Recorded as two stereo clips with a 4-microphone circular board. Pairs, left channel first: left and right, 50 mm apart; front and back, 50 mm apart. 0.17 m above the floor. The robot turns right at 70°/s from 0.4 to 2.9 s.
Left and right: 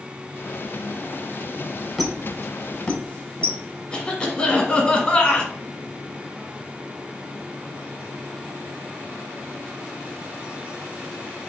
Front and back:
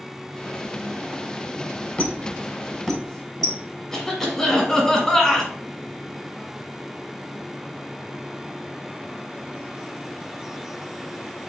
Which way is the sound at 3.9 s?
65° left.